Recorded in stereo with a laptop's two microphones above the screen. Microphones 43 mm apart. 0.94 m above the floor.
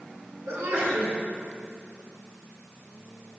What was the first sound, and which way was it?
A sneeze, 65° right (ahead or behind).